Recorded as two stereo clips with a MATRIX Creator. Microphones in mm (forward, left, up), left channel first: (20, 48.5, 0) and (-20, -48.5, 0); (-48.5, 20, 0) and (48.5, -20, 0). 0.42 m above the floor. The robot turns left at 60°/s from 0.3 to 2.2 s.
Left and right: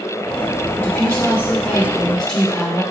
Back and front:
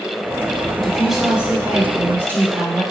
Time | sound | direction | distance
0.8 | a woman speaking | 75° left | 0.8 m